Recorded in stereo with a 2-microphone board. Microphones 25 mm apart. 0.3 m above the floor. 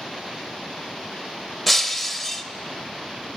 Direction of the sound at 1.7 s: 5° left (ahead or behind).